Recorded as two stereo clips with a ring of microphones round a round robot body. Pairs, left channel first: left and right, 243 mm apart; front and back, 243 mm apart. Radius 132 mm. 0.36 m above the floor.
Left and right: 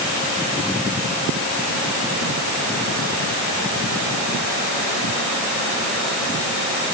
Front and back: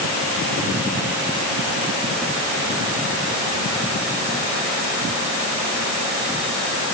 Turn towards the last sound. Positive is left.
No sound to turn to.